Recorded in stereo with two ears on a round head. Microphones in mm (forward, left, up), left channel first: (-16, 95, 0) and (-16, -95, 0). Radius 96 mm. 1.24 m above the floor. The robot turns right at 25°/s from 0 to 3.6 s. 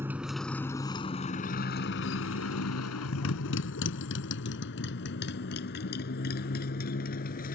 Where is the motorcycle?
10° right (ahead or behind); by 7.6 s 45° left (ahead or behind).